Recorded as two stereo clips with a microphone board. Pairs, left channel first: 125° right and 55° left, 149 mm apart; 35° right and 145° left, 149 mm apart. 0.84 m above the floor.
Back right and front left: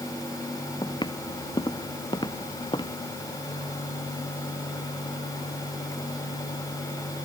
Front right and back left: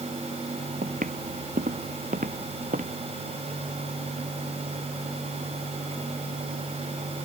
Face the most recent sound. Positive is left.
turn(degrees=175)